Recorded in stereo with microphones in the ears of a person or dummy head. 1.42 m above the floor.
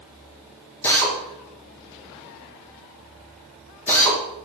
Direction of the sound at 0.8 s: 15° left (ahead or behind).